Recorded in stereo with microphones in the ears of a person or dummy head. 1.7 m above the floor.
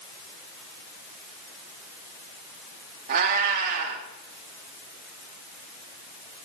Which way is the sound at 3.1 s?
50° right (ahead or behind).